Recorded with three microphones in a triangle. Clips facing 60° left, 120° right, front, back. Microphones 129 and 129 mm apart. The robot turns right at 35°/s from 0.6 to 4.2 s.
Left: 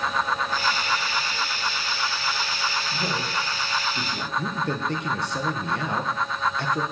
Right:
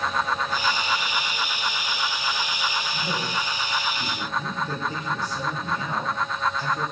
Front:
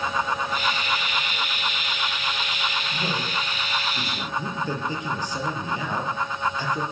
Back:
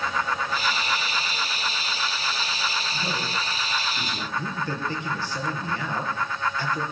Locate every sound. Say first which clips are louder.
2.9 s a man speaking: even, front 1 dB; 30° left, 9.5 m; by 4.3 s 75° left, 9.5 m
4.4 s a man speaking: left 3 dB, front 2 dB; 75° left, 4.5 m